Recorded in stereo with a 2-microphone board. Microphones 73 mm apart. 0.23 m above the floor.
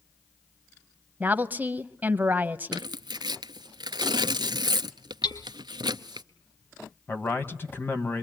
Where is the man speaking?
30° left (ahead or behind), 1.7 m.